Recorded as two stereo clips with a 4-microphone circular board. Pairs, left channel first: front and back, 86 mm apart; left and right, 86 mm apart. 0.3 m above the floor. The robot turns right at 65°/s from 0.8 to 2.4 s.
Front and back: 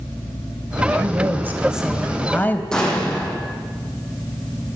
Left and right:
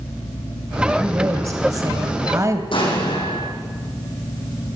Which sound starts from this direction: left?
An explosion, at 2.7 s.